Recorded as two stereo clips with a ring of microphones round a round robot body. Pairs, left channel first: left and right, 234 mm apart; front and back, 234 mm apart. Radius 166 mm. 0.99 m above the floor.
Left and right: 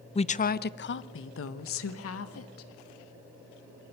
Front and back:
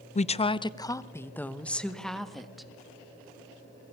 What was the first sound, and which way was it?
A woman speaking, 40° left.